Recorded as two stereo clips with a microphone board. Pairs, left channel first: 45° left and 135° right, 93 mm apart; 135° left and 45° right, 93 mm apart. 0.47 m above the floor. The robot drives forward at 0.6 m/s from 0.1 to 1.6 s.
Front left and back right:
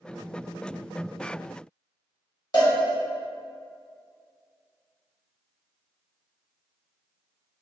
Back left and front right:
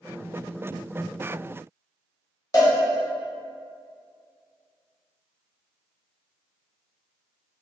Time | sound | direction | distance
2.5 | a cowbell | 85° left | 1.1 m